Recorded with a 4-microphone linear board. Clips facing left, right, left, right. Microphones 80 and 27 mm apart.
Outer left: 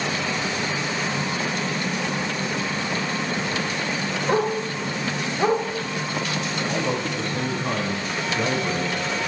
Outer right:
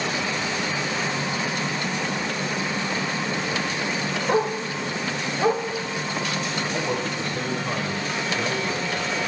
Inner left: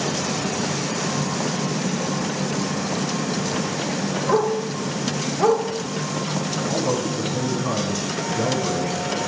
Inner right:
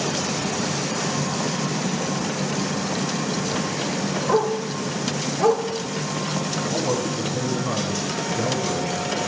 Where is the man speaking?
50° left (ahead or behind), 8 m.